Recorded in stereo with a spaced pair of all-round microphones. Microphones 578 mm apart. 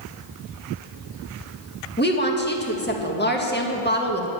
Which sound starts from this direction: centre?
A woman speaking, at 2.0 s.